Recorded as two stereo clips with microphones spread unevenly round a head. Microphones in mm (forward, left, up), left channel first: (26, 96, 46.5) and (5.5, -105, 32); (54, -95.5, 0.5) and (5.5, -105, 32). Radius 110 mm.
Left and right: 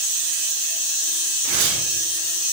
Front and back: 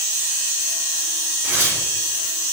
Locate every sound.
1.4 s tearing paper: 105° right, 4 m